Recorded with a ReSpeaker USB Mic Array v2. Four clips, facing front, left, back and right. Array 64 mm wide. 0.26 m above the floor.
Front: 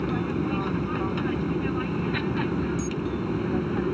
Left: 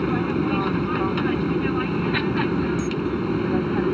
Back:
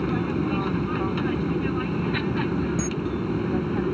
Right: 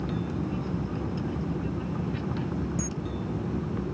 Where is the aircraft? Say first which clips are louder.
Left 9 dB, back 2 dB; 95° left; by 4.0 s 90° left.